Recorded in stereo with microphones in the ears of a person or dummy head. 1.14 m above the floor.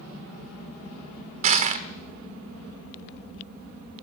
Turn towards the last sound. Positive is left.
turn(degrees=-35)  # may be behind; listen again after turning